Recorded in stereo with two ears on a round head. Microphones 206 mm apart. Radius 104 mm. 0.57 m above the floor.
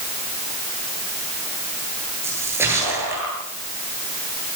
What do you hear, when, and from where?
2.2 s a splash: 10° right (ahead or behind), 10 m